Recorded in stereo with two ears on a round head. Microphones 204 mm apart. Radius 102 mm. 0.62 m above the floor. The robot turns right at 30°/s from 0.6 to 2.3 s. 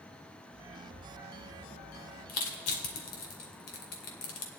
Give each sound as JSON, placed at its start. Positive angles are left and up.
{"t": 2.3, "sound": "crushing", "side_deg": 65, "distance_m": 2.0}